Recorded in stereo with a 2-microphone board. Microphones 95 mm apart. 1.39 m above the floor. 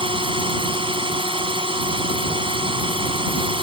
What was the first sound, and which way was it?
A drone, 65° right (ahead or behind).